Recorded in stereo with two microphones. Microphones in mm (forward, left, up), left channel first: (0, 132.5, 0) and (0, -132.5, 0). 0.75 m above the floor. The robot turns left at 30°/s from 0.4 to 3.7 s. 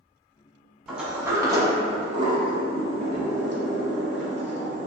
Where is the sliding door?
Centre (ahead or behind), 0.7 m; by 4.9 s 45° right (ahead or behind), 0.7 m.